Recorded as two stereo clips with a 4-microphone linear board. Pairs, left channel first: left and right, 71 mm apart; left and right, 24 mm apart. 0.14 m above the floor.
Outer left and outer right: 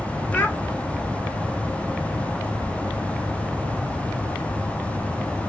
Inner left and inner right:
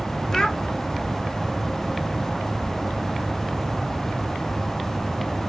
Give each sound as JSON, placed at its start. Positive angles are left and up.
{"t": 0.3, "sound": "a child speaking", "side_deg": 25, "distance_m": 0.7}